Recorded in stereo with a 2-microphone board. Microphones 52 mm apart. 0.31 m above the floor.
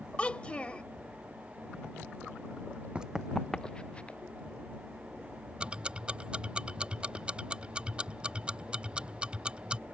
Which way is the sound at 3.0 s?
25° right (ahead or behind).